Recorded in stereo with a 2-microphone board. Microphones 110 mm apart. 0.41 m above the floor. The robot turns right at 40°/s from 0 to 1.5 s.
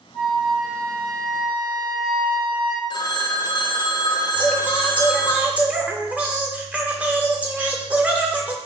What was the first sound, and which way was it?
A flute, 170° left.